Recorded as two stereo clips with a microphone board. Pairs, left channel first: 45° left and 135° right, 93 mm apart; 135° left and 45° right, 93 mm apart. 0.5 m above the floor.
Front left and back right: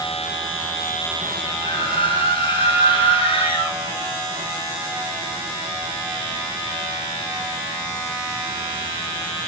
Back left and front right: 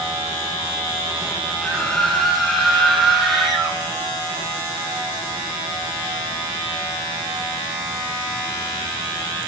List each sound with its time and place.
1.6 s a scream: 50° left, 6 m; by 3.8 s 45° left, 4.5 m